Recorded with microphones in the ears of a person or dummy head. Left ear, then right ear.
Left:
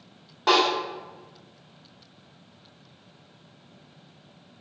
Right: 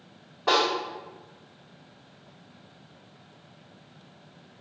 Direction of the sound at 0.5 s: 70° left (ahead or behind).